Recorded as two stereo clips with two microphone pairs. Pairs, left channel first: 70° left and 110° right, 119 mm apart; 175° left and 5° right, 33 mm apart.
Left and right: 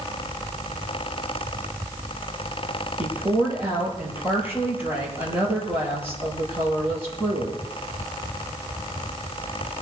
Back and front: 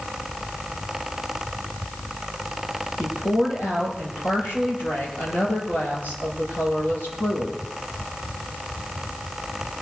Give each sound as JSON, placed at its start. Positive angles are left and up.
{"t": 3.0, "sound": "a woman speaking", "azimuth_deg": 175, "distance_m": 7.5}